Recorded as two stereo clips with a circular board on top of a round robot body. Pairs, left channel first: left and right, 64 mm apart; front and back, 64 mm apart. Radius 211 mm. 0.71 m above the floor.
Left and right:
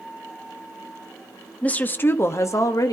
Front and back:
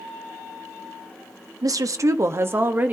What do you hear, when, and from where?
1.6 s a woman speaking: 160° left, 1.2 m; by 2.9 s 115° left, 1.5 m